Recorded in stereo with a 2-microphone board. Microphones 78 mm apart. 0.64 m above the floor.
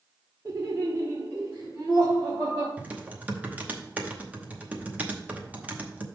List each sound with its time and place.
0.5 s laughter: 45° right (ahead or behind), 1.2 m; by 2.7 s 35° right (ahead or behind), 2.5 m
2.8 s typing on a keyboard: 20° right (ahead or behind), 0.9 m